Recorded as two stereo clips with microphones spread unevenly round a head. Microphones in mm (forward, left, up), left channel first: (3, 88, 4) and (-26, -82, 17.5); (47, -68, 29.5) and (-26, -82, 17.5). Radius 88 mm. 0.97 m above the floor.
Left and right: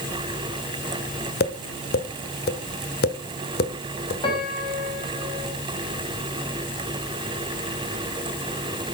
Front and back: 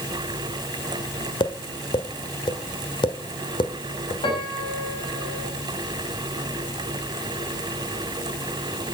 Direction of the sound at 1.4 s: 40° left.